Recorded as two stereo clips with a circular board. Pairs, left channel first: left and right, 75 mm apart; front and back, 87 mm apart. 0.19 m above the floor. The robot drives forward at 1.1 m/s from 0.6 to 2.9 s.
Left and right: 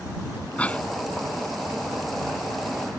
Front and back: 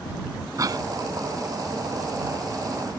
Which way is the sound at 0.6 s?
155° left.